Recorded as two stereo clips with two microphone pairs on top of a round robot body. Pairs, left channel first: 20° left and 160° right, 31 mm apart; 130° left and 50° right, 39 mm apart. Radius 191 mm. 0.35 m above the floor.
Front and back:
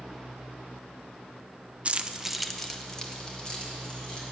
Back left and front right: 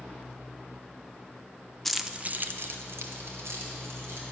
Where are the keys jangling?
145° right, 0.6 m; by 4.2 s 45° right, 2 m.